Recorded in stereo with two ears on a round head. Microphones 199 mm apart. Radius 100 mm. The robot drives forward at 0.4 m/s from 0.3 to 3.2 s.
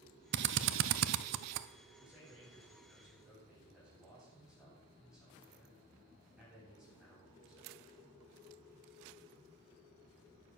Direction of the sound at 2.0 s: Centre (ahead or behind).